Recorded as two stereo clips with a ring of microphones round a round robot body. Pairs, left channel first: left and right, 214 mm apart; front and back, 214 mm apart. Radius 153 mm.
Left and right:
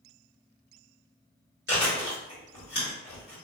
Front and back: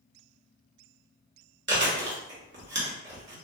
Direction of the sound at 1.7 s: 145° left.